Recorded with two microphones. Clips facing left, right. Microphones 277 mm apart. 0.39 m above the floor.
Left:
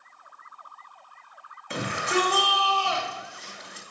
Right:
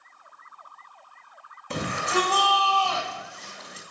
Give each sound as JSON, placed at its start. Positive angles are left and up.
{"t": 1.7, "sound": "a shout", "side_deg": -50, "distance_m": 2.5}